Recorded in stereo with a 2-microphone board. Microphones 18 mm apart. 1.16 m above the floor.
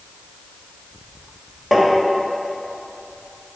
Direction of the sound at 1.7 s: Centre (ahead or behind).